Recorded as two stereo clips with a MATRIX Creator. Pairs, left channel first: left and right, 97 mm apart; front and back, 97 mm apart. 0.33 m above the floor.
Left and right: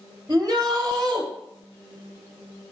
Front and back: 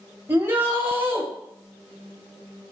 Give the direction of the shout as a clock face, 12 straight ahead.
4 o'clock.